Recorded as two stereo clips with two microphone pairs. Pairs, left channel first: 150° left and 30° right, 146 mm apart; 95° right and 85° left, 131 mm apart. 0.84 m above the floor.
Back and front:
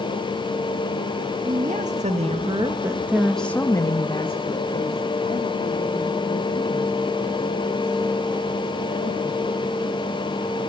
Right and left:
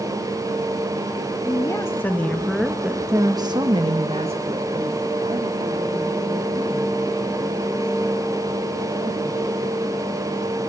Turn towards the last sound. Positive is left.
turn(degrees=125)